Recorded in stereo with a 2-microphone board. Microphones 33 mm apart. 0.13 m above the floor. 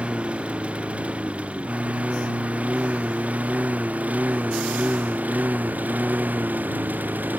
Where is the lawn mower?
35° right (ahead or behind); by 7.4 s 60° right (ahead or behind).